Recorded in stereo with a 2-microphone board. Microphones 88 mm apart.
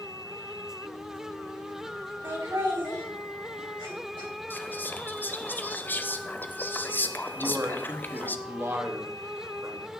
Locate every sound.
2.2 s laughter: 50° right (ahead or behind), 3 m; by 4.3 s 70° right (ahead or behind), 3 m
4.5 s whispering: 25° left (ahead or behind), 0.6 m
7.4 s a man speaking: 30° right (ahead or behind), 1.1 m